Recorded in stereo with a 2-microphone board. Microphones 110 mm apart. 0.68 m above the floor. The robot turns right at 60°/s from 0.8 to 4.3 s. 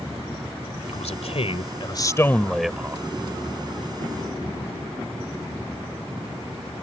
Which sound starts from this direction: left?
A man speaking, at 0.9 s.